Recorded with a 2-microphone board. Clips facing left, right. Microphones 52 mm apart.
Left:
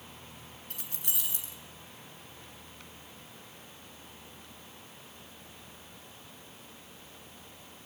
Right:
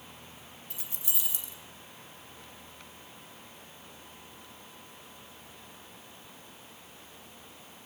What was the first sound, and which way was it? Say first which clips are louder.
Keys jangling: left 1 dB; 60° left (ahead or behind).